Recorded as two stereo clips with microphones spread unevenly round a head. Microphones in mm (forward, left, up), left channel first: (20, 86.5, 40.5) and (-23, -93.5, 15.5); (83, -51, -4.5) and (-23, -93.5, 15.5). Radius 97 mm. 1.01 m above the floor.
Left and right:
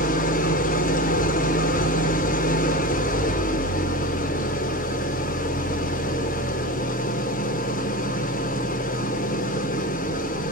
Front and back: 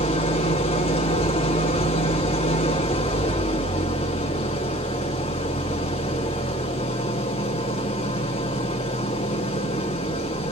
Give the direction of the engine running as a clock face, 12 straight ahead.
10 o'clock.